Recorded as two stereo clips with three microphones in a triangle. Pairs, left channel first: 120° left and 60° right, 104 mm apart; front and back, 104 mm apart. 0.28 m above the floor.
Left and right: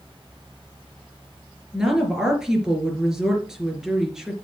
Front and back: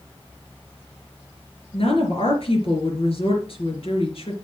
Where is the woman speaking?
25° left, 4 m.